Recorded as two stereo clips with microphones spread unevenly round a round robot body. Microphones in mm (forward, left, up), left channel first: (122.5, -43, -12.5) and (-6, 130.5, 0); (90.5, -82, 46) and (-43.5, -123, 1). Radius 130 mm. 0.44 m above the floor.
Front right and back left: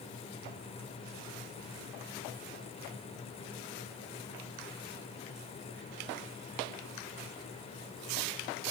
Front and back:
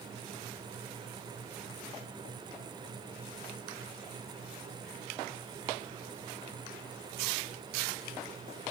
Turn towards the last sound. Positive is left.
No sound to turn to.